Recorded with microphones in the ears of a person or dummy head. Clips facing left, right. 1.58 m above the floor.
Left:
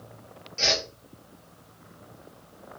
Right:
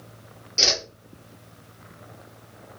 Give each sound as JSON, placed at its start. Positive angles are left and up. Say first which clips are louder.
{"t": 0.6, "sound": "a whoosh", "louder": "even", "side_deg": -60, "distance_m": 0.9}